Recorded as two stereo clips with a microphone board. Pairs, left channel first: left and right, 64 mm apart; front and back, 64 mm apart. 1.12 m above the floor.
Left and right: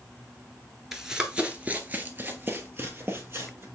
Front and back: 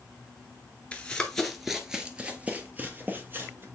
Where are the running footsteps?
20° right, 1.1 m; by 3.6 s 130° right, 2 m.